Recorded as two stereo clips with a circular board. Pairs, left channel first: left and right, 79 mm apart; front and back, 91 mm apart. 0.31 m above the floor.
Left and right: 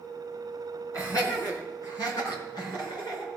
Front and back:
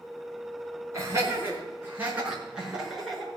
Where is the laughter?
130° left, 3.5 m; by 3.3 s 90° left, 4 m.